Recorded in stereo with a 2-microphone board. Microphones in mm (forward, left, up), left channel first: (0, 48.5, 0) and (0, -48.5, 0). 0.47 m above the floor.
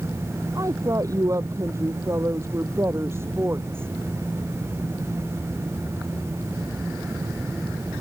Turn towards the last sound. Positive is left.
turn(degrees=-25)  # may be behind; listen again after turning